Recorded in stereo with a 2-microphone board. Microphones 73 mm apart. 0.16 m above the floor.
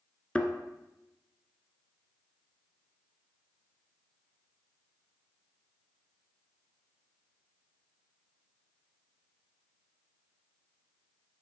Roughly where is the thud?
Centre.